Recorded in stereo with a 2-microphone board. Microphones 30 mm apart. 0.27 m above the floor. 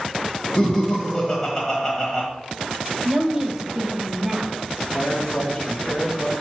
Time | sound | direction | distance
0.6 | laughter | 10° left (ahead or behind) | 1.3 m
3.0 | a woman speaking | 20° right (ahead or behind) | 1.3 m
4.9 | a man speaking | 30° left (ahead or behind) | 2.0 m